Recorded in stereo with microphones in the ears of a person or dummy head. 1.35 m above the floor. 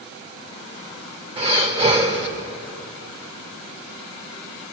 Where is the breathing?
25° right (ahead or behind), 1.7 m.